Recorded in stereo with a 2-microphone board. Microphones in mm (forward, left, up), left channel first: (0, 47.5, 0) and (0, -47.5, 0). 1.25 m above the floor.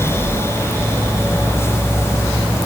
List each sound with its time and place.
Only background noise.